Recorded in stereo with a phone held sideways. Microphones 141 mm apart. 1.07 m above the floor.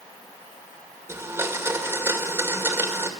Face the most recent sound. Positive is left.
turn(degrees=-15)  # may be behind; listen again after turning